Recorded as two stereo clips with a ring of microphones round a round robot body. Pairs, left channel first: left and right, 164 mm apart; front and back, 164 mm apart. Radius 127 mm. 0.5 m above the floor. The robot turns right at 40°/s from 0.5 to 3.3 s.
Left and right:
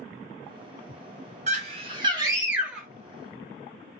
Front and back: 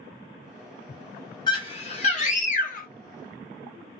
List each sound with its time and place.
1.5 s a scream: 60° right, 1.0 m; by 2.9 s straight ahead, 1.0 m